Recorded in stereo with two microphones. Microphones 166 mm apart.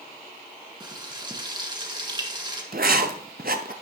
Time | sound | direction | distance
0.8 | frying | 25° right (ahead or behind) | 1.6 m
2.7 | writing | 65° right (ahead or behind) | 0.7 m